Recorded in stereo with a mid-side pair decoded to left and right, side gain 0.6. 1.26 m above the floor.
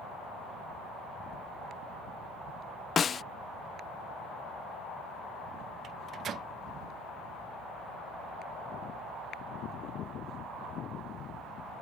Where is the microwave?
45° right.